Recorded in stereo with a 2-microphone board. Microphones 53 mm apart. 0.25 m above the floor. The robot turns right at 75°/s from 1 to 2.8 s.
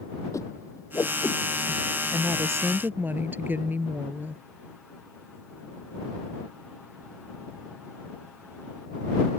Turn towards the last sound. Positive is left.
turn(degrees=-40)